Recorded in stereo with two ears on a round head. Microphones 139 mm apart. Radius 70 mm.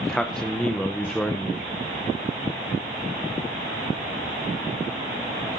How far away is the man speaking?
About 0.6 m.